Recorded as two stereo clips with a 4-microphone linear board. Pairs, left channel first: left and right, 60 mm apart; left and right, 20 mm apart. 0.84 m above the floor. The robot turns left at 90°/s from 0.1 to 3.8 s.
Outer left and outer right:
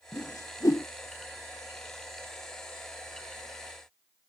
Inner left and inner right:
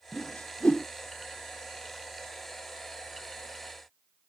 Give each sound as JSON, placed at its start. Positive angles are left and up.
{"t": 0.1, "sound": "a whoosh", "side_deg": 50}